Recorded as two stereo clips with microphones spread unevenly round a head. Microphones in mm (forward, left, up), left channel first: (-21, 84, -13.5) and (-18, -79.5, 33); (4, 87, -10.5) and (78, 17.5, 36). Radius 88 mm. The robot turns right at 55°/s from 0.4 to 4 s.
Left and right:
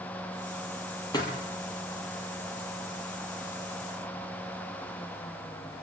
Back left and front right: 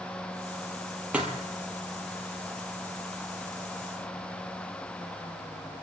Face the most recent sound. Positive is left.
turn(degrees=170)